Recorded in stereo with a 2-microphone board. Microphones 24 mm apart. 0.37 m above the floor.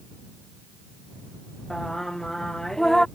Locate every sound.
1.7 s singing: 20° left (ahead or behind)